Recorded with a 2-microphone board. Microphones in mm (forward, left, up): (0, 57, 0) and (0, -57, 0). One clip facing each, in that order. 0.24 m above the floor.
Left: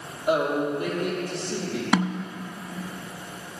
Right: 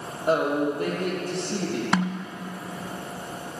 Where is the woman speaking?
45° right (ahead or behind), 5 m; by 1.8 s 60° right (ahead or behind), 5.5 m.